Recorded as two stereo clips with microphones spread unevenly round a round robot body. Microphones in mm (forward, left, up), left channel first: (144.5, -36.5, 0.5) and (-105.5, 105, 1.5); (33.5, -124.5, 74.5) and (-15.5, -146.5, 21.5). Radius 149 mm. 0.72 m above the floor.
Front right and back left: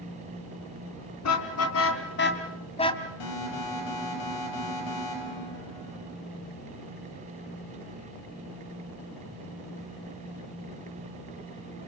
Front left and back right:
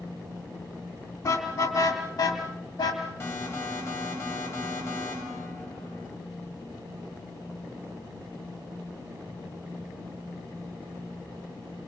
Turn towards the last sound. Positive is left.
turn(degrees=-30)